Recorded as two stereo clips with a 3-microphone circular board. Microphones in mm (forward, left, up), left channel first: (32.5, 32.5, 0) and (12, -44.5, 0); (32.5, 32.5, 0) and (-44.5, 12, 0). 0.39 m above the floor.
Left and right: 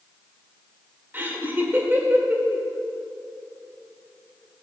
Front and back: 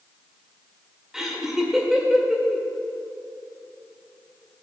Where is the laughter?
85° right, 1.5 m.